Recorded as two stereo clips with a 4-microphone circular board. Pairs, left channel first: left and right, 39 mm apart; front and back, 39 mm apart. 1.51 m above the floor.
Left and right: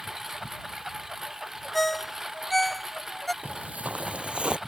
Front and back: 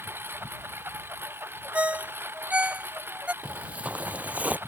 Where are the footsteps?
130° right; by 4.6 s 145° right.